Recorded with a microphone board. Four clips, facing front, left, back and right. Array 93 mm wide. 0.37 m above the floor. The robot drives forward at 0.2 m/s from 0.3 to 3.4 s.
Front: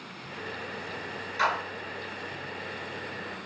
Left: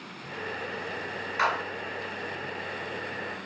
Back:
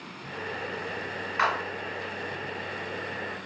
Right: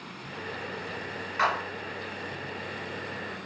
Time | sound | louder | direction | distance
1.4 | a clap | even, back 1 dB | 170° left | 1.3 m